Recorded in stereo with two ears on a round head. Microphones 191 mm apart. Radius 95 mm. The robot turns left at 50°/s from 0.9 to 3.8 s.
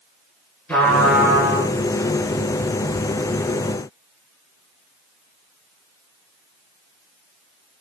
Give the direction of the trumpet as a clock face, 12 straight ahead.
12 o'clock.